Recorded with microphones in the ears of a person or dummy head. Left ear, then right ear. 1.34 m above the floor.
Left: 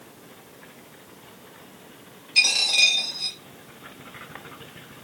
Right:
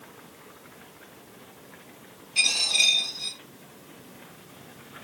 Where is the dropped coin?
10° left (ahead or behind), 2.5 m.